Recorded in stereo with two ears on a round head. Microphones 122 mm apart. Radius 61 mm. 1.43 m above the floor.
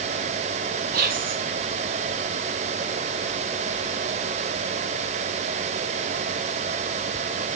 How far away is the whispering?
About 3.5 m.